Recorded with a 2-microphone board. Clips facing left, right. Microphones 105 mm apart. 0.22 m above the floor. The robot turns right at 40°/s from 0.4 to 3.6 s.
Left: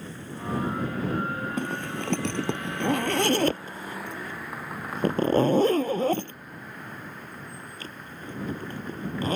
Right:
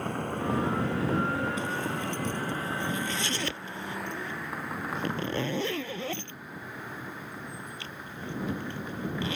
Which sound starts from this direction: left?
A zipper, at 1.6 s.